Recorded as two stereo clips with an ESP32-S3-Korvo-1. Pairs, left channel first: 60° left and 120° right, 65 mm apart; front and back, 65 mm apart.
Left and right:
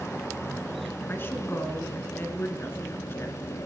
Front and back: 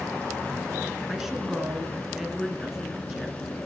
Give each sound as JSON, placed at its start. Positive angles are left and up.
{"t": 1.1, "sound": "a woman speaking", "azimuth_deg": 100, "distance_m": 2.0}